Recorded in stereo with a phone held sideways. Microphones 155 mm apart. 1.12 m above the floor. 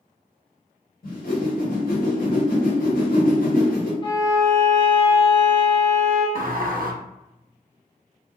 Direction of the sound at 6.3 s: 65° right (ahead or behind).